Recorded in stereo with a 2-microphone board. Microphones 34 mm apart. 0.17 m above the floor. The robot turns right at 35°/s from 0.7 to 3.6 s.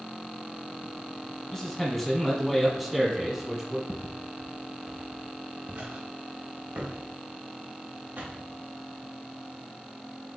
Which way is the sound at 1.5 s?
10° left (ahead or behind).